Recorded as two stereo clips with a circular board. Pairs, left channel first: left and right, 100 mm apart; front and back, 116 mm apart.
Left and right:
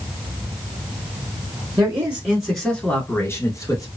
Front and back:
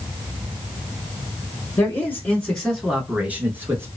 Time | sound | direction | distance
1.8 | a man speaking | 50° right | 1.2 m